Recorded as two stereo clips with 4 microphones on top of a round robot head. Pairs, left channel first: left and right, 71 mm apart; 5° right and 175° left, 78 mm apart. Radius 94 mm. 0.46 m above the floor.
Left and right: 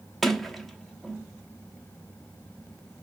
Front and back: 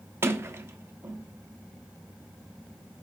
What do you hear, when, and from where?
0.2 s a sliding door: 175° left, 1.0 m